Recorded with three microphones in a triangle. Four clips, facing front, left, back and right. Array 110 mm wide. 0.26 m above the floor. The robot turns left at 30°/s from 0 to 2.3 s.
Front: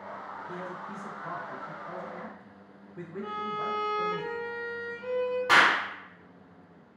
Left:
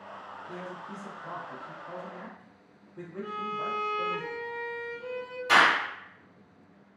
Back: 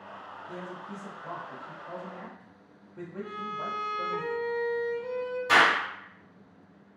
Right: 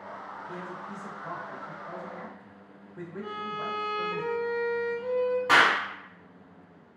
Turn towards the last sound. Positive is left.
turn(degrees=-40)